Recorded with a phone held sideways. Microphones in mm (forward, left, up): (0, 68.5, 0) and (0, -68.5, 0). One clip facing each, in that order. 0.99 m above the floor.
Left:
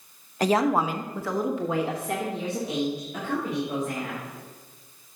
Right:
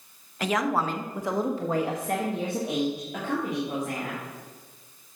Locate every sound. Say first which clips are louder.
0.4 s a woman speaking: left 4 dB; 40° left (ahead or behind), 0.7 m; by 4.2 s 75° right (ahead or behind), 2.5 m